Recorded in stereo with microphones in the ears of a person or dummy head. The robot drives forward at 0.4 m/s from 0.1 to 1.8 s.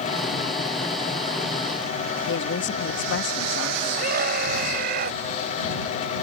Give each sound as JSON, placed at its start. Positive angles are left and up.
{"t": 2.3, "sound": "a woman speaking", "side_deg": 65}
{"t": 4.0, "sound": "a scream", "side_deg": -55}